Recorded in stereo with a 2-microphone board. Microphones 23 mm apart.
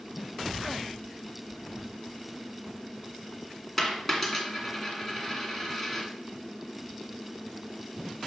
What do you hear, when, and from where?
3.8 s a dropped coin: centre (ahead or behind), 1.9 m